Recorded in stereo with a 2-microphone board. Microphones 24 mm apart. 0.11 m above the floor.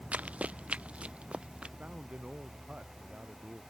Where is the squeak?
No squeak in this recording.